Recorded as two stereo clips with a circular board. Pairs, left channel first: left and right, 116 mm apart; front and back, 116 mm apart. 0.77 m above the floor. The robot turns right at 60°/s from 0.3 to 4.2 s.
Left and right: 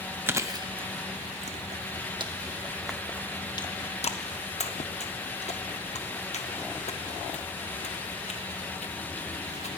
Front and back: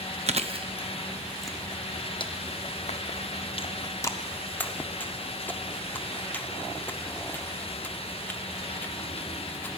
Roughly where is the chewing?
Behind.